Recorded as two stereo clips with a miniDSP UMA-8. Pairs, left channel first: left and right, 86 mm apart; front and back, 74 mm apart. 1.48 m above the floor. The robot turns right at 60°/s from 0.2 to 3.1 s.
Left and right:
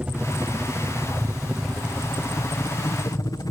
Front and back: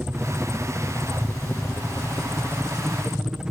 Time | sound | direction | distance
0.0 | a helicopter | 140° right | ?